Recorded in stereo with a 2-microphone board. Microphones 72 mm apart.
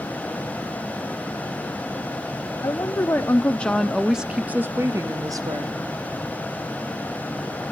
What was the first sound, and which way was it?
A woman speaking, 35° left (ahead or behind).